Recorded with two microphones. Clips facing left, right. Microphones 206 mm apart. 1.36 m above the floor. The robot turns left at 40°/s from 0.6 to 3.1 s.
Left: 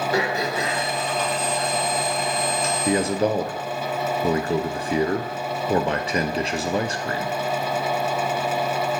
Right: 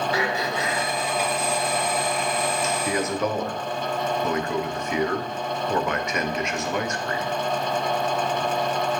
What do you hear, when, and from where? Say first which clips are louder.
0.1 s throat clearing: left 2 dB; 45° left (ahead or behind), 3.5 m; by 2.7 s 50° left (ahead or behind), 3.5 m
2.9 s a man speaking: left 6 dB; 25° left (ahead or behind), 0.7 m; by 7.4 s 30° left (ahead or behind), 0.7 m